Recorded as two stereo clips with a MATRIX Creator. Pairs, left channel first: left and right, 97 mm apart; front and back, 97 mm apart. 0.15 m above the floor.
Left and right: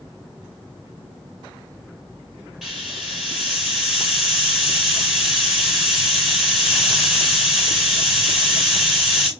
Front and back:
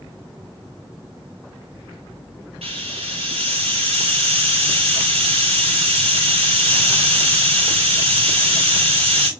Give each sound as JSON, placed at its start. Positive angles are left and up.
{"t": 2.6, "sound": "a hiss", "azimuth_deg": 180, "distance_m": 5.5}